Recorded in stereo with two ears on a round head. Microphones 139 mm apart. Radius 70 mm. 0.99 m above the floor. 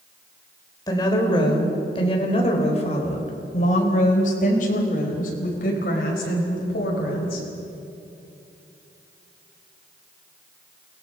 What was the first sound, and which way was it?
A woman speaking, 25° left (ahead or behind).